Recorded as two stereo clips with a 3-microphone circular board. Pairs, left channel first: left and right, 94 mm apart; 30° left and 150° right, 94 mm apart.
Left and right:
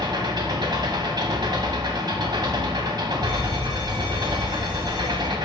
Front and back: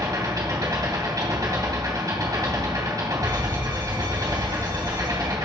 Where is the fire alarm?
105° right, 4 m.